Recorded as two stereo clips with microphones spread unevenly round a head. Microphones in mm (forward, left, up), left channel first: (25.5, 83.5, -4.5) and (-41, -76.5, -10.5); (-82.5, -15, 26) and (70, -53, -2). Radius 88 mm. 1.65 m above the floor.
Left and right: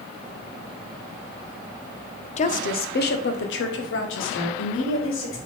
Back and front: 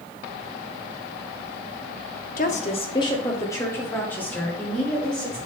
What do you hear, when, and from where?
2.4 s a woman speaking: 120° left, 0.7 m; by 5.4 s 80° left, 2.5 m